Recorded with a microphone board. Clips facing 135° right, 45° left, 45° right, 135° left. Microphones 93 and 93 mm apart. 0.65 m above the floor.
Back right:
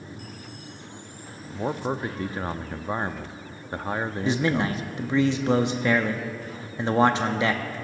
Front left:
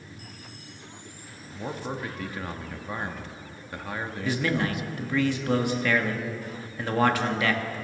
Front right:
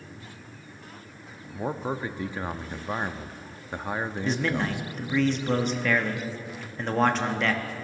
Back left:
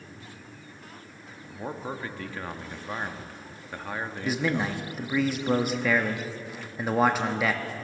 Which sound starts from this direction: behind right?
A man speaking, at 4.2 s.